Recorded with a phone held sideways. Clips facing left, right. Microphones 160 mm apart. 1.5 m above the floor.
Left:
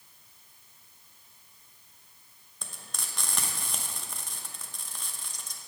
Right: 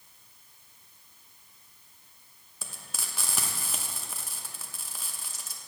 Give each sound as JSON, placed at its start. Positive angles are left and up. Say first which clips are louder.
{"t": 2.6, "sound": "frying", "louder": "right 1 dB", "side_deg": -5, "distance_m": 0.9}